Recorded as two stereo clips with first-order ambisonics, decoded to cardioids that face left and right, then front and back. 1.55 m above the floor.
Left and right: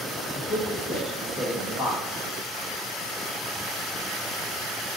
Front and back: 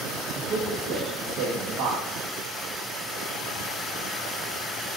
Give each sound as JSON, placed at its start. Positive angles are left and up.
{"t": 0.3, "sound": "a man speaking", "azimuth_deg": 150, "distance_m": 1.4}